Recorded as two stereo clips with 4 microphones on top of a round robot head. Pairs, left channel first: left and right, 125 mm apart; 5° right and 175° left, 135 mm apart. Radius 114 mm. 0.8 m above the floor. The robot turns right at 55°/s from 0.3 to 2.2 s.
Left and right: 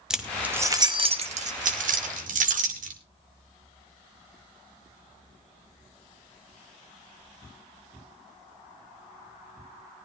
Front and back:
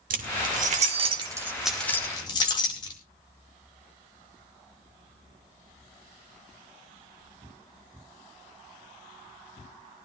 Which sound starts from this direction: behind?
Keys jangling, at 0.1 s.